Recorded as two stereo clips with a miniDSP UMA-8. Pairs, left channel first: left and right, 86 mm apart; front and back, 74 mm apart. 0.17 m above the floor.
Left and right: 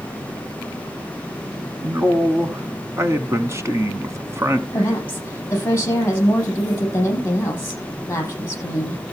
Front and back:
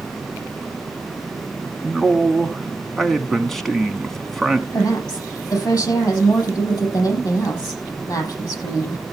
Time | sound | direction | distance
1.8 | a man speaking | 85° right | 1.2 m
4.7 | a woman speaking | 30° left | 6 m